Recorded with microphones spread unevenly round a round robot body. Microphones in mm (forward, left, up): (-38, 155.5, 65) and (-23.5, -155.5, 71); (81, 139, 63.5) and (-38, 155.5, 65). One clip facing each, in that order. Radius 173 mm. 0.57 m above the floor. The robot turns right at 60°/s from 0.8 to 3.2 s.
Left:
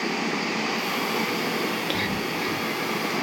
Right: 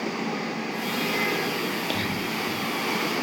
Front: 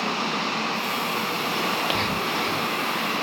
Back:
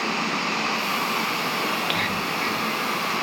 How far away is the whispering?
About 0.6 m.